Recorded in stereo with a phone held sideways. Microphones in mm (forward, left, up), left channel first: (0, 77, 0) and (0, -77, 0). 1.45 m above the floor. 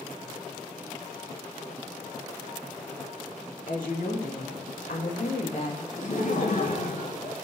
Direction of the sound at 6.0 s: 60° left (ahead or behind).